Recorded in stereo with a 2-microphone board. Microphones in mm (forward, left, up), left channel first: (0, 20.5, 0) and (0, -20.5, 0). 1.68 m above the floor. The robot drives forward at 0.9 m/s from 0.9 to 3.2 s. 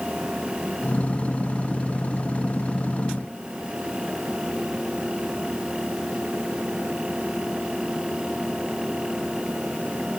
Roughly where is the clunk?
I don't hear a clunk.